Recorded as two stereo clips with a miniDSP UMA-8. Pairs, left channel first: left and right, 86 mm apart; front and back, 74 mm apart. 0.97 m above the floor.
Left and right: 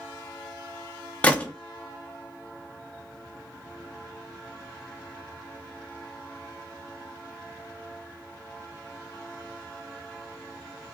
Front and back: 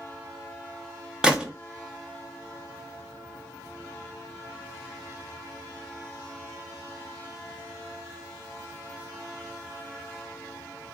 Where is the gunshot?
125° left, 0.5 m.